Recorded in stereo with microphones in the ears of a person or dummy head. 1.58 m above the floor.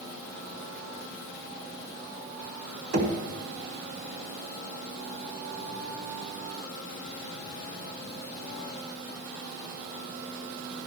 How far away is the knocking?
About 1.9 m.